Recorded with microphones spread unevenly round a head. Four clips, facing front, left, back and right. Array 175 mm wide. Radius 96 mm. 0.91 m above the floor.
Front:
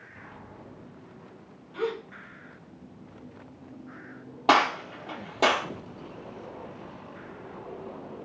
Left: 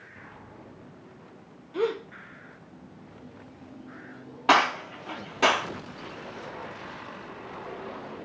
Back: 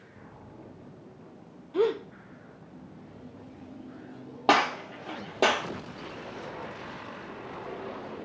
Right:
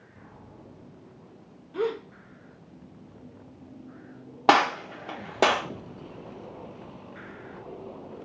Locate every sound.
1.7 s a gasp: 175° left, 0.5 m
4.5 s a gunshot: 125° right, 0.7 m